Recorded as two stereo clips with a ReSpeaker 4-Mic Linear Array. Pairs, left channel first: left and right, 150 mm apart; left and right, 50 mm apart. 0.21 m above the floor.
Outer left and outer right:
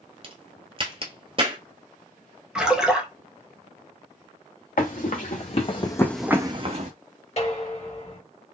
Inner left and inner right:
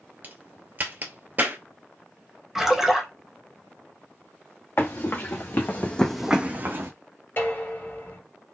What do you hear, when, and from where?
0.2 s a crack: 40° right (ahead or behind), 1.0 m
2.5 s a splash: 5° right (ahead or behind), 1.0 m
4.8 s running footsteps: 65° left (ahead or behind), 2.0 m; by 6.9 s 55° right (ahead or behind), 1.1 m
7.4 s dishes clattering: 50° left (ahead or behind), 2.5 m